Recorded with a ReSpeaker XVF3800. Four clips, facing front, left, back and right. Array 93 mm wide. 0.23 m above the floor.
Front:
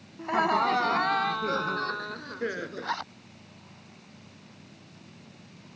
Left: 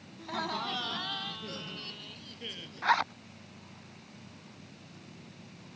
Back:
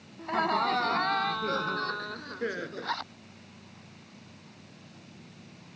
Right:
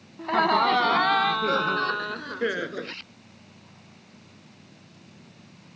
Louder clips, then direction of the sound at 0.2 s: Right 14 dB, front 3 dB; 75° right.